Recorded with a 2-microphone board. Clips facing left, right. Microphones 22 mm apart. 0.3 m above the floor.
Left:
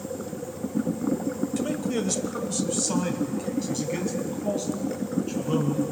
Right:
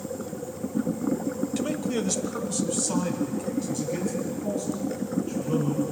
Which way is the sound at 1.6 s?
15° right (ahead or behind).